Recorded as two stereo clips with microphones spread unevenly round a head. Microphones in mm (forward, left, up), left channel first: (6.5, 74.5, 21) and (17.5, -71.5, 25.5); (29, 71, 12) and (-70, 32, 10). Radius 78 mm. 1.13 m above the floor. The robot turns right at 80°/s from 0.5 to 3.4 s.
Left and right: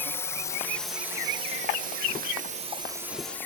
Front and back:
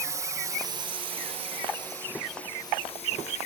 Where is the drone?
160° left; by 3.5 s 15° left.